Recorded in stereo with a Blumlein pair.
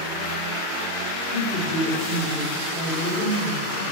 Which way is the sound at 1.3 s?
45° left.